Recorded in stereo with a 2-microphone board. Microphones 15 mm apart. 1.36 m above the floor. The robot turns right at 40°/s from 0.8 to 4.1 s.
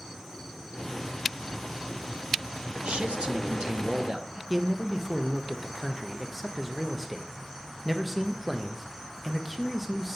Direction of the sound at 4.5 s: Centre (ahead or behind).